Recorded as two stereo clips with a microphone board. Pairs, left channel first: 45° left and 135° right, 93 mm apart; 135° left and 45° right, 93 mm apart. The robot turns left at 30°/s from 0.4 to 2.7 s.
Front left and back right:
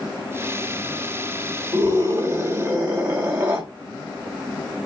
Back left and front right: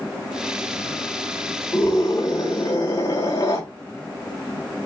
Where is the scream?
170° right, 3.5 m; by 3.6 s 160° left, 3.5 m.